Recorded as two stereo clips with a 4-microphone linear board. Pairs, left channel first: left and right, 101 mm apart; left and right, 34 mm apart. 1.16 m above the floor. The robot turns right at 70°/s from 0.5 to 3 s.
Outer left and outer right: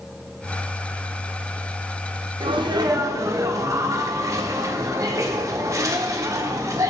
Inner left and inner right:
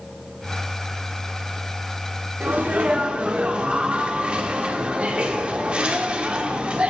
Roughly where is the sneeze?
Right.